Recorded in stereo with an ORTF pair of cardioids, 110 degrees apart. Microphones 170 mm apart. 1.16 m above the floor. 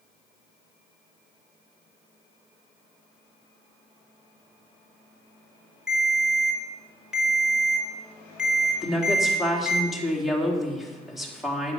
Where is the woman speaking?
Straight ahead, 2.5 m.